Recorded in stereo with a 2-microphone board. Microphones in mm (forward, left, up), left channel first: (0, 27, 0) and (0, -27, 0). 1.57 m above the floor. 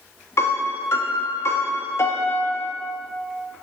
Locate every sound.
0.4 s a piano: 55° left (ahead or behind), 0.8 m